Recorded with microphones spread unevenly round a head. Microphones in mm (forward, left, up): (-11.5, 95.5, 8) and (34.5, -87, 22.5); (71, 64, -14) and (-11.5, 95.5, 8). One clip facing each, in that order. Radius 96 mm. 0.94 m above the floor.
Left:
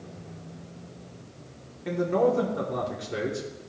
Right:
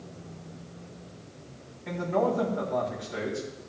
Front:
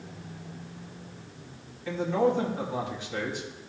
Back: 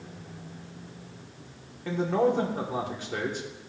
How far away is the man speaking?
About 2.5 m.